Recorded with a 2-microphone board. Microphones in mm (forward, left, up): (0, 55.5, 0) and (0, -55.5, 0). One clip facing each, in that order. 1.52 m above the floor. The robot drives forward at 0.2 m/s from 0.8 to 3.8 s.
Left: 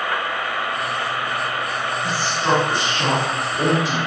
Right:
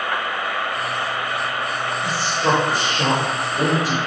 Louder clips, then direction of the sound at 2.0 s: Right 1 dB; 75° right (ahead or behind).